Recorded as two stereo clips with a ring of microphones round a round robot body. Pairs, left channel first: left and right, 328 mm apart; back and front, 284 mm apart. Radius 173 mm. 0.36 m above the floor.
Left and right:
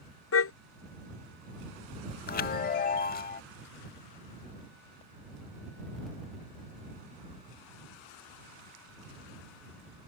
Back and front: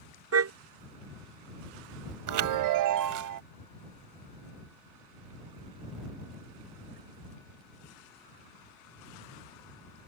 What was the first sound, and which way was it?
A car horn, 40° left.